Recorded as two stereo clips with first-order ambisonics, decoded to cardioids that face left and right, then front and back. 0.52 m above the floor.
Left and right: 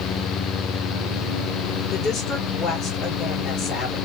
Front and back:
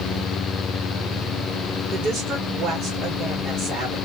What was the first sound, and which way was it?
A woman speaking, 145° left.